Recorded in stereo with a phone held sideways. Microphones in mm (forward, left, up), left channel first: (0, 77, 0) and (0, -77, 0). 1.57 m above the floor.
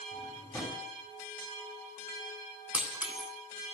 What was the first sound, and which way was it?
A drawer, 20° left (ahead or behind).